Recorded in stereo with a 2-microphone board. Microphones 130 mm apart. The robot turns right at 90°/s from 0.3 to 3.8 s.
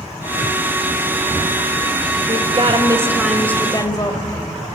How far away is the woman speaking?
About 1.9 m.